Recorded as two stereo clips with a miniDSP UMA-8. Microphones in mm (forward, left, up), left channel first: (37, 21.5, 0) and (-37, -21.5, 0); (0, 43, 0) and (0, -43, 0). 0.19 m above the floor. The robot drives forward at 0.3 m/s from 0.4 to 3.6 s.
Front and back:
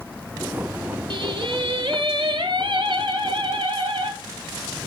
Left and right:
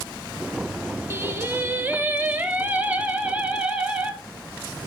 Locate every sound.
1.1 s singing: 150° right, 0.9 m; by 4.1 s 165° right, 1.6 m